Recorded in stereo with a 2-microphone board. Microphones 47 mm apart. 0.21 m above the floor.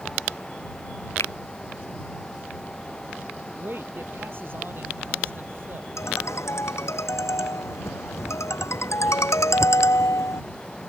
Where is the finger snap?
85° left.